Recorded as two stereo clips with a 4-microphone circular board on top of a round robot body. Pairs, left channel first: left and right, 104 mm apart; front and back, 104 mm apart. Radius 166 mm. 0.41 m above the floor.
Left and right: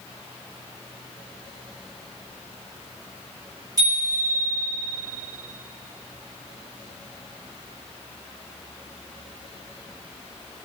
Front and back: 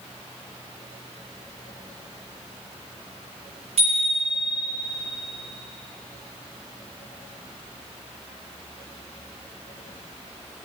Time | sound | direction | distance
3.8 | a bicycle bell | 150° right | 8.5 m